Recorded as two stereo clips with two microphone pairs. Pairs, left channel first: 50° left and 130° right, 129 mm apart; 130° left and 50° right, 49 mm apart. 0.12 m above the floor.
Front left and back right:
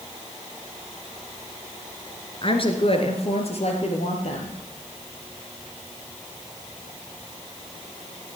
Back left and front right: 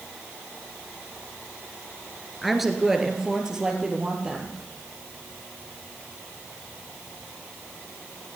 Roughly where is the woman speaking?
Ahead left.